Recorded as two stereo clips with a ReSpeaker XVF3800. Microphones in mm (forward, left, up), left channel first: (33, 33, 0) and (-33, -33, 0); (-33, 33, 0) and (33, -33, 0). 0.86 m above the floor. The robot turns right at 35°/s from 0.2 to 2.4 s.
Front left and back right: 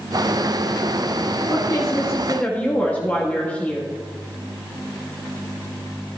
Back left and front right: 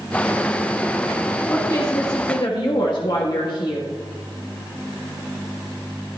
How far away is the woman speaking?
About 1.6 m.